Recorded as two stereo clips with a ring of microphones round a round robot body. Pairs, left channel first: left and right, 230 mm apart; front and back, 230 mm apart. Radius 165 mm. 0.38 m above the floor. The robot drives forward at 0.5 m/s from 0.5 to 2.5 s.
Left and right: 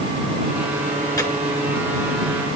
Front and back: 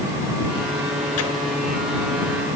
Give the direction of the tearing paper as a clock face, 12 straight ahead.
12 o'clock.